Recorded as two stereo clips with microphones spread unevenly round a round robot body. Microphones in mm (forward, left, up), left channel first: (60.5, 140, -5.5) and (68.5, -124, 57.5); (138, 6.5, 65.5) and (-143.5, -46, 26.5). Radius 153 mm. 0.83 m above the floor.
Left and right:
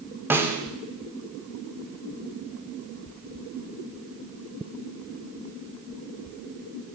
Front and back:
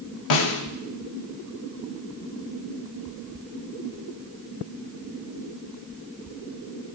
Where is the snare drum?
10° right, 0.9 m.